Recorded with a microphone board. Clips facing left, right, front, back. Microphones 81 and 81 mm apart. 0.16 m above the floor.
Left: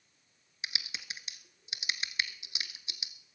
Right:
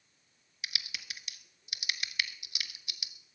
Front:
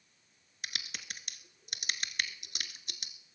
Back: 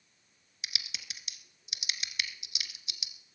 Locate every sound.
0.6 s typing on a keyboard: 30° left, 0.9 m